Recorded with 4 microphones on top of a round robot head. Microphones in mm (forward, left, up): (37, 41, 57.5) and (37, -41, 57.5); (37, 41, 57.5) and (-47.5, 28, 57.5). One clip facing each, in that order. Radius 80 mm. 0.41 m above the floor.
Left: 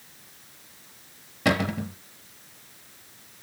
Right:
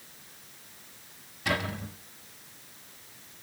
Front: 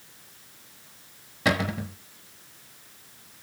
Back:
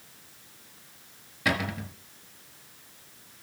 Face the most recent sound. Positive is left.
turn(degrees=75)